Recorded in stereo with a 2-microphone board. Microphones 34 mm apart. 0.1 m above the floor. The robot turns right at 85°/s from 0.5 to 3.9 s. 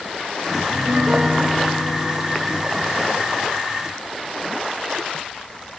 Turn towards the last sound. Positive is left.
turn(degrees=-160)